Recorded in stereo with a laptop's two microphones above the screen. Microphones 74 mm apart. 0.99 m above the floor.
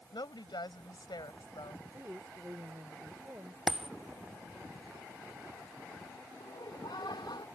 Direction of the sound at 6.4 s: 80° left.